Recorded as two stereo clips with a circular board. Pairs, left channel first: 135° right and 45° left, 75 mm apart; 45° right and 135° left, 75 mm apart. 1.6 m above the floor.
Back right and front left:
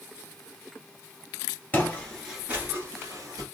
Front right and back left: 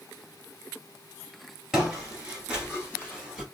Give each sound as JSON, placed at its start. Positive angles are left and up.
{"t": 1.7, "sound": "footsteps", "azimuth_deg": -160, "distance_m": 1.7}